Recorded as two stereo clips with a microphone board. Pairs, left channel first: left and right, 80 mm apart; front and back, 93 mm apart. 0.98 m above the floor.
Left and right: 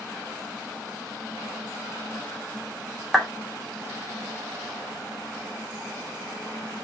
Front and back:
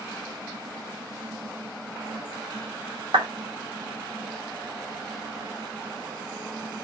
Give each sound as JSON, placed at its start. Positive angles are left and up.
{"t": 3.1, "sound": "a clap", "azimuth_deg": 180, "distance_m": 2.0}